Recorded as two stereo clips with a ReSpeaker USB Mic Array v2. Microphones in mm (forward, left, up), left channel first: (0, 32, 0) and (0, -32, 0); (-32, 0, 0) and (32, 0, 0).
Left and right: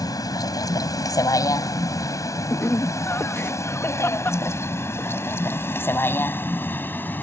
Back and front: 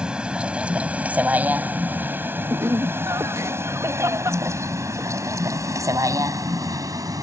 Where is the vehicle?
75° left; by 7.2 s 30° left.